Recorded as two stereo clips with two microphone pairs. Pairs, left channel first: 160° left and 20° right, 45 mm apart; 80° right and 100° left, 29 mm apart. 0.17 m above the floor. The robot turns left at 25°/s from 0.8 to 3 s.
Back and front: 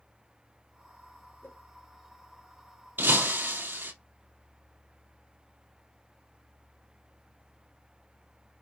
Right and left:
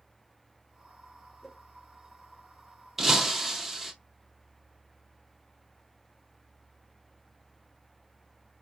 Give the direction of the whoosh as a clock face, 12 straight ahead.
6 o'clock.